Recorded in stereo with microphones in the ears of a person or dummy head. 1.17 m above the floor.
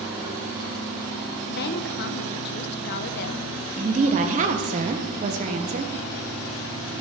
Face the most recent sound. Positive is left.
turn(degrees=-40)  # may be behind; listen again after turning